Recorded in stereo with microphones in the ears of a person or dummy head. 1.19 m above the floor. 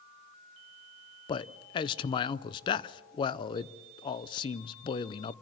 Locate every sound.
1.3 s a man speaking: 30° left (ahead or behind), 0.6 m